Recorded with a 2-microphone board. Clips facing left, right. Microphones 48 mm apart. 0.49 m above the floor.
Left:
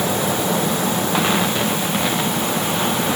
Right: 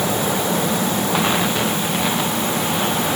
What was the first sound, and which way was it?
Only background noise.